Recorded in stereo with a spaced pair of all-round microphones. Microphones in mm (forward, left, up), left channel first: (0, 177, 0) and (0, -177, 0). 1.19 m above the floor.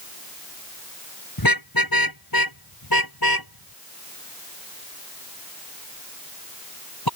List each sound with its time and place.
1.4 s a car horn: 70° left (ahead or behind); by 7.1 s 80° left